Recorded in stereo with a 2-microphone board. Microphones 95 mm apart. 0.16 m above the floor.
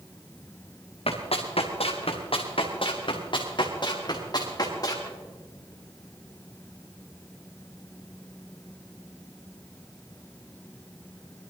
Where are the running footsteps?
85° left, 2.5 m; by 5.1 s 40° left (ahead or behind), 4.5 m.